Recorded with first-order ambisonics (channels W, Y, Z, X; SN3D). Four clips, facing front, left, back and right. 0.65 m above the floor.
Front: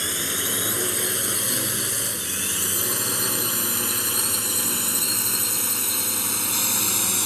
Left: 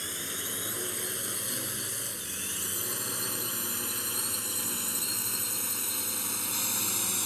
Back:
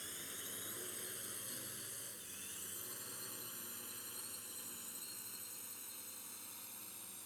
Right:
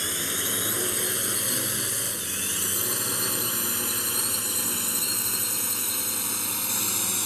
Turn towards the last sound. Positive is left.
turn(degrees=-10)